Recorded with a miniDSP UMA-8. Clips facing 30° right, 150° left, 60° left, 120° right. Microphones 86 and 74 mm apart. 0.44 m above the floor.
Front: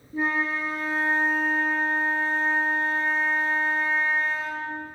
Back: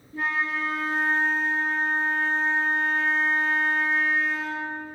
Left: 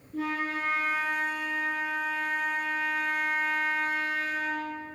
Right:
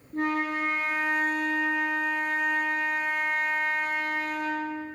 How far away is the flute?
About 2 m.